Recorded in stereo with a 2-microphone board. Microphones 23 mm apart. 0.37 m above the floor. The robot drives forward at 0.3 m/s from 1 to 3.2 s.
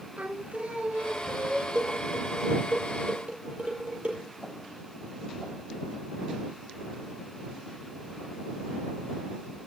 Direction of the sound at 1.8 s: 50° right (ahead or behind).